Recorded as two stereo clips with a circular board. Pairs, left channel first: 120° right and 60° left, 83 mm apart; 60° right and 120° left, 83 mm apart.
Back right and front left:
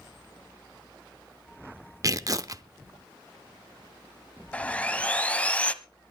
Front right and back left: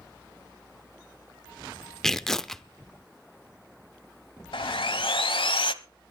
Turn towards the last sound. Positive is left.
turn(degrees=-45)